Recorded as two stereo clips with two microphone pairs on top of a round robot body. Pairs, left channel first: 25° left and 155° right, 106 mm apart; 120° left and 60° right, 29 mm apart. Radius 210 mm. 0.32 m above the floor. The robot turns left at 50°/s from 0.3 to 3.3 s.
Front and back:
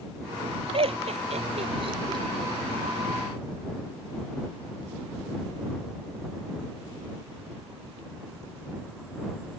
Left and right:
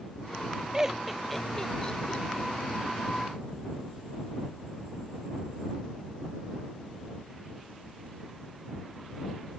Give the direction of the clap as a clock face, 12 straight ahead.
No clap in this recording.